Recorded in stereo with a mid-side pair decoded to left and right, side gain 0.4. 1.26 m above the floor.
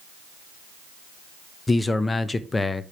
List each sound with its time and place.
1.7 s a man speaking: 25° left, 0.9 m